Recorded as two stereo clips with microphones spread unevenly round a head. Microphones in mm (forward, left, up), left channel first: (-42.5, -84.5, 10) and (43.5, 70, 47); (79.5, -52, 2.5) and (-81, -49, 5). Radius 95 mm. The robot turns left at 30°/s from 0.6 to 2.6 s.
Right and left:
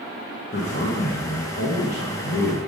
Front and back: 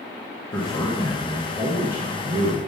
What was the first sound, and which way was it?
A man speaking, 65° right.